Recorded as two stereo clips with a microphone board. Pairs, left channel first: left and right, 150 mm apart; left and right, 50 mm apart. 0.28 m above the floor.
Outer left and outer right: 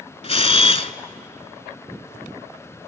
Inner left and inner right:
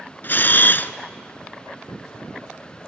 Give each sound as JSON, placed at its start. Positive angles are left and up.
{"t": 0.2, "sound": "a camera shutter", "side_deg": 45, "distance_m": 0.7}